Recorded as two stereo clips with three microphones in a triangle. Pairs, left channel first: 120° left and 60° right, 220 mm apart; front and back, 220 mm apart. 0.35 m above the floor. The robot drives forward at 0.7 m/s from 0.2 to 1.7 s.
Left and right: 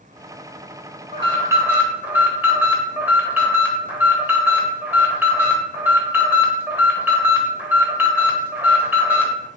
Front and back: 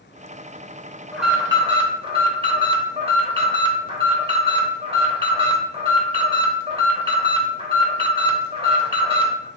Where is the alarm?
85° right, 0.8 m; by 9.5 s 135° right, 0.9 m.